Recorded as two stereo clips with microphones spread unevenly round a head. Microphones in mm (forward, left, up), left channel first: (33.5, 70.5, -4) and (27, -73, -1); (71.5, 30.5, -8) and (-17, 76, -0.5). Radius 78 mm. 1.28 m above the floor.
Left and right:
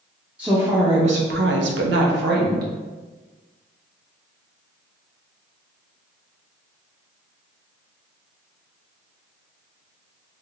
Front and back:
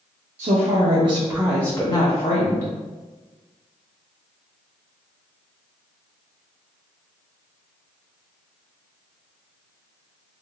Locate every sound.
0.4 s a woman speaking: 175° right, 0.7 m; by 2.7 s 70° right, 0.9 m